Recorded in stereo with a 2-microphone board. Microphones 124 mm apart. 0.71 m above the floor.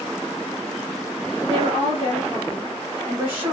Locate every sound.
1.4 s a woman speaking: 35° right (ahead or behind), 1.6 m; by 3.5 s 15° right (ahead or behind), 1.1 m